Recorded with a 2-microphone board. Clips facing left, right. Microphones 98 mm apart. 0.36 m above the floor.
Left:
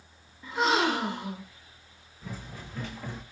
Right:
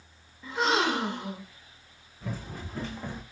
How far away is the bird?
No bird in this recording.